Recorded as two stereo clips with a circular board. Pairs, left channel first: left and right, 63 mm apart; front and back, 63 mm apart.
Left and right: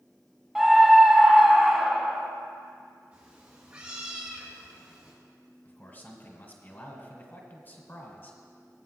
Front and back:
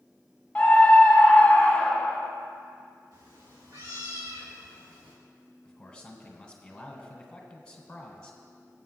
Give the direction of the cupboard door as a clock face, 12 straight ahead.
No cupboard door in this recording.